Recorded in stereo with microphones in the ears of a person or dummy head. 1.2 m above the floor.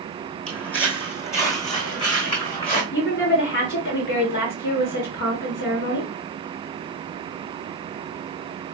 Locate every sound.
0.5 s footsteps: 5° left (ahead or behind), 2 m; by 2.8 s 30° left (ahead or behind), 3 m
2.9 s a woman speaking: 60° left (ahead or behind), 2 m